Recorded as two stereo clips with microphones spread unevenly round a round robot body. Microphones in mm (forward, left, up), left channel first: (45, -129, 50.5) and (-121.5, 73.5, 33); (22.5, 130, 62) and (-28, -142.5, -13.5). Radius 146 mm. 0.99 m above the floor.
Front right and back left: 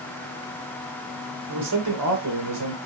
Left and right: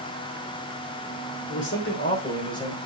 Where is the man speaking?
130° left, 3 m; by 2.8 s 160° left, 3.5 m.